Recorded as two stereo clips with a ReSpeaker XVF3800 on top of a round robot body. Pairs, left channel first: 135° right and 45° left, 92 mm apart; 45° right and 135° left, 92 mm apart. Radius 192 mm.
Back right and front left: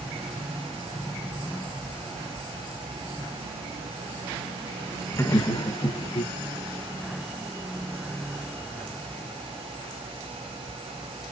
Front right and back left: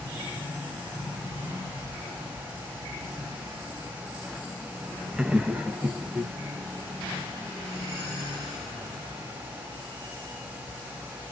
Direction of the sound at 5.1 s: 155° right.